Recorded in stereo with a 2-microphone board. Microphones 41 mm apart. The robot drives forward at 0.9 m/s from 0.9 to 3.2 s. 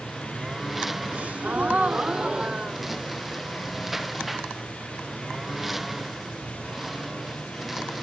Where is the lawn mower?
5° right (ahead or behind).